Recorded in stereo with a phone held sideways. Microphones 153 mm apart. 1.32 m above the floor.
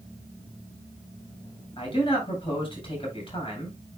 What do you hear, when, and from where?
1.8 s a man speaking: 35° left (ahead or behind), 8.5 m